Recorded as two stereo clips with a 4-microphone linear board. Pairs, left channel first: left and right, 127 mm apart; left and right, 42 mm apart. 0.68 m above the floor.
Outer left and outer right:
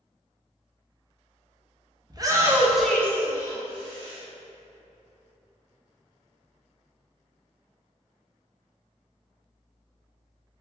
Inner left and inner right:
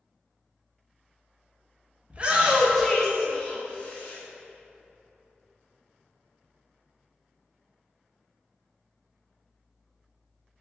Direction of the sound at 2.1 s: 35° right (ahead or behind).